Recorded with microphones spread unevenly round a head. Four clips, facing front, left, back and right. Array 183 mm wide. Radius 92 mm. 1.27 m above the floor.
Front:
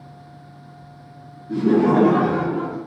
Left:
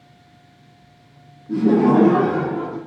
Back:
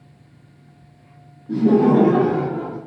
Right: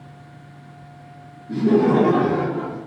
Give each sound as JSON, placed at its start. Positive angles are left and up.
{"t": 1.5, "sound": "laughter", "azimuth_deg": 170, "distance_m": 1.0}